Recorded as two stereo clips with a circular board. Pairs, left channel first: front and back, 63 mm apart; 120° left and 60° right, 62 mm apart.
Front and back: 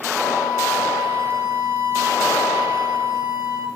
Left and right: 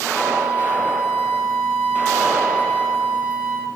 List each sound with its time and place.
0.1 s a flute: 170° left, 3.5 m